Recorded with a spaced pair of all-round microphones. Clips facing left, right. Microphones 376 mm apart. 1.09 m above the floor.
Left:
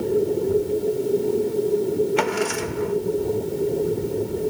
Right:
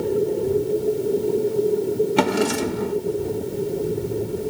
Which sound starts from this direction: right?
A drawer, at 2.2 s.